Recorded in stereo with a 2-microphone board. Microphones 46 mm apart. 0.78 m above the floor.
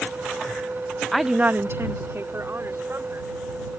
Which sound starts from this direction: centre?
A woman speaking, at 1.1 s.